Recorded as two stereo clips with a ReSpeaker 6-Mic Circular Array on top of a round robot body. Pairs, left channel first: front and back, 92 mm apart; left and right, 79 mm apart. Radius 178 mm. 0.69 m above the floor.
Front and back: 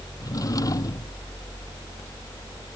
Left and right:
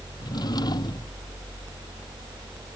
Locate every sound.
0.2 s a drawer: 50° left